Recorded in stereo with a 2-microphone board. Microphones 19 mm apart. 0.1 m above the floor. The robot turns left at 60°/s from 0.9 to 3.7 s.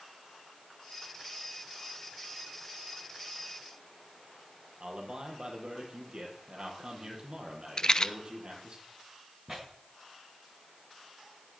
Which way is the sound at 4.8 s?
45° right (ahead or behind).